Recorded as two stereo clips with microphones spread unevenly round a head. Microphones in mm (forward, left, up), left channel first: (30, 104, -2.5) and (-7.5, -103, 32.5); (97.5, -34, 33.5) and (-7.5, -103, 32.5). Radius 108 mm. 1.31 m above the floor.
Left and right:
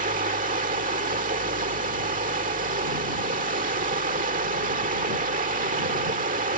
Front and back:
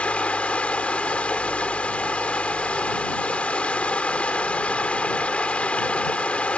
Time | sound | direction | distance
0.0 | running water | 45° right | ?